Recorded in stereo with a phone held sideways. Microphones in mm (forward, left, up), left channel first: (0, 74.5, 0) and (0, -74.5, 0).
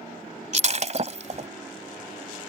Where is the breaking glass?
50° right (ahead or behind).